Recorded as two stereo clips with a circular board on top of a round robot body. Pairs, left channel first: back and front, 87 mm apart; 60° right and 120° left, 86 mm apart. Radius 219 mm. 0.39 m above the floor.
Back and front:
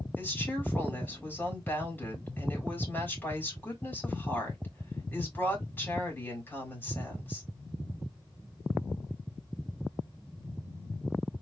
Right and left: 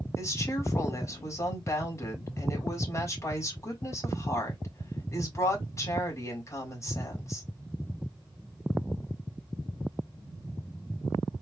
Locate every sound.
0.2 s a woman speaking: 110° right, 3.5 m